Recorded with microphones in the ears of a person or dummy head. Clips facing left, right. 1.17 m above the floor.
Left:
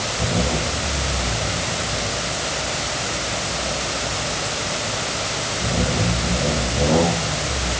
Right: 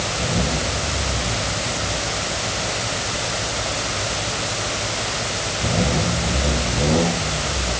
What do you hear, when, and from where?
Only background noise.